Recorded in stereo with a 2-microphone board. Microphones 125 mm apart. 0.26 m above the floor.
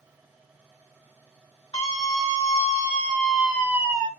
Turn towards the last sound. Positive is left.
turn(degrees=-30)  # may be behind; listen again after turning